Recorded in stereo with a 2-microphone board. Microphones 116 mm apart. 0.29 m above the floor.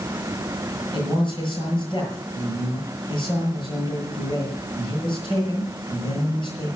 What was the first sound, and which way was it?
A man speaking, 45° left (ahead or behind).